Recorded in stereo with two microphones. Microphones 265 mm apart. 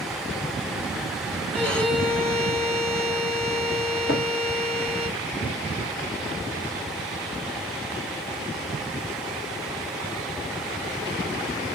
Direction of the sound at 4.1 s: 50° left (ahead or behind).